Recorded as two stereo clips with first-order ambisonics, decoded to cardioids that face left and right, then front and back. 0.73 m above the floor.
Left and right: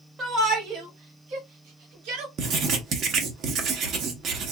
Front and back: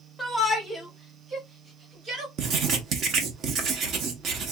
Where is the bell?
No bell in this recording.